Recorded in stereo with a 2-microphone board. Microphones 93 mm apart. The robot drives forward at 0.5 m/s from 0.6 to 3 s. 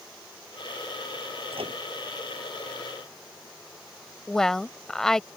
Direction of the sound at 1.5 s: 75° right (ahead or behind).